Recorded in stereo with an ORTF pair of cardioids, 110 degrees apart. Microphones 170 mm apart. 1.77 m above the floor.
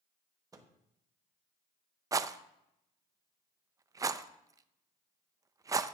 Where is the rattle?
20° right, 0.5 m.